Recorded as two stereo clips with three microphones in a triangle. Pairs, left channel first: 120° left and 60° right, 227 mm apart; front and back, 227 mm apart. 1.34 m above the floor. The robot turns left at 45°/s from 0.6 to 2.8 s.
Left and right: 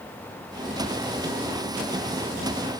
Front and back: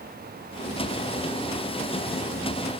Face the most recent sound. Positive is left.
No sound to turn to.